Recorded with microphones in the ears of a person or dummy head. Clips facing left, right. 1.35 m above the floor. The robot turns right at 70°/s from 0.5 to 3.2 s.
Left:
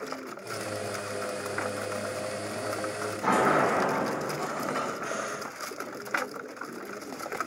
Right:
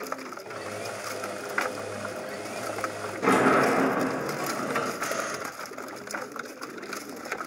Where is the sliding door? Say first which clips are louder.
Right 3 dB; 35° right (ahead or behind), 0.8 m.